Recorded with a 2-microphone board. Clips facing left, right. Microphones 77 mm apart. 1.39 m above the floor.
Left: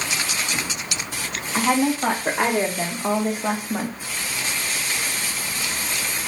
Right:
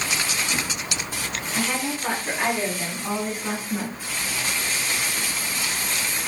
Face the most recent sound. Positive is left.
turn(degrees=40)  # may be behind; listen again after turning